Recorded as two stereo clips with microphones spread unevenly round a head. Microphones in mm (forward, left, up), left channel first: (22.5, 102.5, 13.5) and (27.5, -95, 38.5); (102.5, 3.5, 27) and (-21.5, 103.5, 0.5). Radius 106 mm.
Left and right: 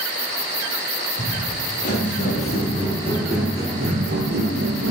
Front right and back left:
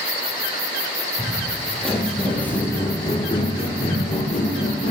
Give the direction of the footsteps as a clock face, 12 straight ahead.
10 o'clock.